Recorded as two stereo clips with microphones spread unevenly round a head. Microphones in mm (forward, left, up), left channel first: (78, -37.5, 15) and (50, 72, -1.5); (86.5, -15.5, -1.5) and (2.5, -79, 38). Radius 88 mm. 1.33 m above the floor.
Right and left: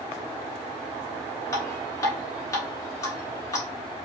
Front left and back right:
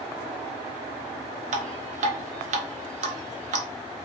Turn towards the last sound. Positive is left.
turn(degrees=-150)